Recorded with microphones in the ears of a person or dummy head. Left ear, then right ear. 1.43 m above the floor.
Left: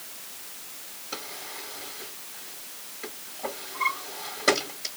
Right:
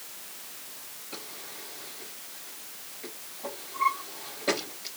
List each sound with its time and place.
1.1 s a drawer: 50° left (ahead or behind), 4 m